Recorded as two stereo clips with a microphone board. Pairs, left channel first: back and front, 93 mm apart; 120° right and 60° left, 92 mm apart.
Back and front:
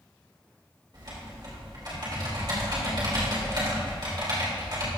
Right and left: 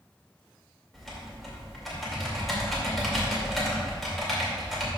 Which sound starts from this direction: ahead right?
Typing on a keyboard, at 0.9 s.